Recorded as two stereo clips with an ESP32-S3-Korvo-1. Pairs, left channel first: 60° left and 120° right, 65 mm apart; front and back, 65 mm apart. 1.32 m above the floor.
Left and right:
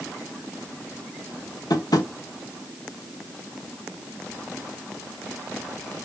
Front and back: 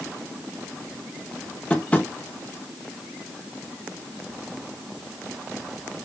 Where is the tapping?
70° left, 1.5 m.